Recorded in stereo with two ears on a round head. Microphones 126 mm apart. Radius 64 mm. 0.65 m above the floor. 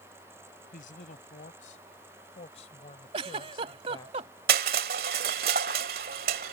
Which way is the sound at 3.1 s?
40° right (ahead or behind).